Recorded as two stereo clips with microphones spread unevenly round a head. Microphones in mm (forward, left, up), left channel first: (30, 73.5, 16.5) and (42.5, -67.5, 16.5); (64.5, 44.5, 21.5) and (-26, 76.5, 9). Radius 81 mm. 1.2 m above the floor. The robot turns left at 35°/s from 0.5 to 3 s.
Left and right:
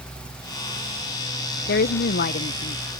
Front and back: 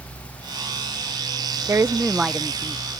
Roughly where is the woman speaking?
Left.